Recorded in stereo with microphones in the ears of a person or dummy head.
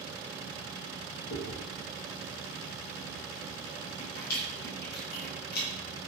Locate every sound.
1.3 s chewing: 55° left (ahead or behind), 1.3 m